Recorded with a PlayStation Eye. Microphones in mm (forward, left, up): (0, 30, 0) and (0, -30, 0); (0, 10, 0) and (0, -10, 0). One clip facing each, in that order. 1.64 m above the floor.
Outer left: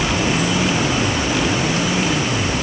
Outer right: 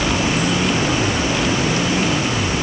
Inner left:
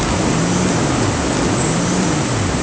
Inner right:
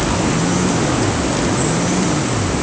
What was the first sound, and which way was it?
Only background noise.